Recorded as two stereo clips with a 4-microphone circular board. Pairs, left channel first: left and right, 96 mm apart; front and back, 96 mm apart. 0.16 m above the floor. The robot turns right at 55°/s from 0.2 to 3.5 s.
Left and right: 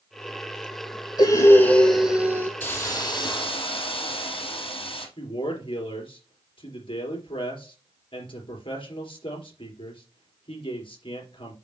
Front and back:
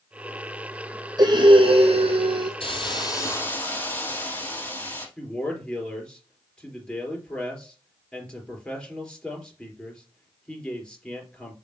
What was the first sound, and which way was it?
Breathing, 135° left.